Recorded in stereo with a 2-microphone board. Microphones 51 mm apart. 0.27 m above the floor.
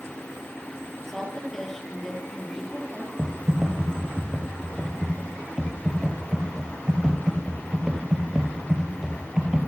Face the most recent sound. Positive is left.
turn(degrees=-15)  # may be behind; listen again after turning